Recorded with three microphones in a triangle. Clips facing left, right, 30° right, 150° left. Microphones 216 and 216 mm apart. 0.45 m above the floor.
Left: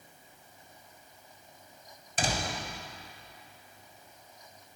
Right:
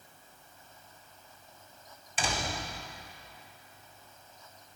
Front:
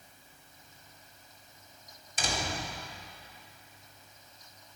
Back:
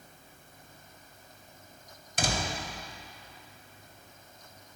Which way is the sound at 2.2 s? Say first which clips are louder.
Left 2 dB, back 2 dB; 135° left.